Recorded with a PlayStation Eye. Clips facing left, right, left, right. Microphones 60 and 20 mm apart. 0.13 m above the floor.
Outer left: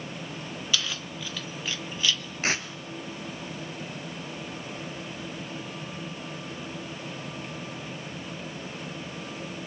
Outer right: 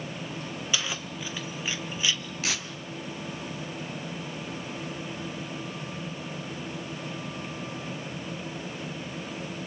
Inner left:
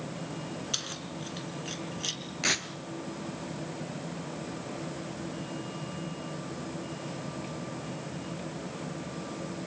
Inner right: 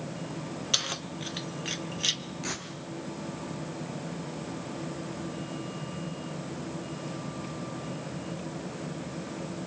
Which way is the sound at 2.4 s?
40° left (ahead or behind).